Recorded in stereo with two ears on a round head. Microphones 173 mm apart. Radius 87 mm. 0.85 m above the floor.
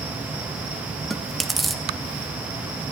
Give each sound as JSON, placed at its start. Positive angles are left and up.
{"t": 1.1, "sound": "chewing", "side_deg": 0, "distance_m": 0.7}